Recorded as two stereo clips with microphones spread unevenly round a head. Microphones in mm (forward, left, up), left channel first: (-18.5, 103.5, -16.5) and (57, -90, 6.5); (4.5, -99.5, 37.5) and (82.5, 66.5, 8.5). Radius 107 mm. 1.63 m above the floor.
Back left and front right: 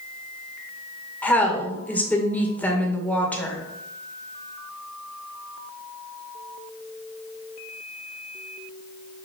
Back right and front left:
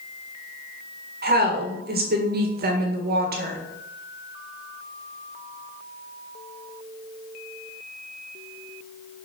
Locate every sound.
1.2 s a woman speaking: 25° left, 1.8 m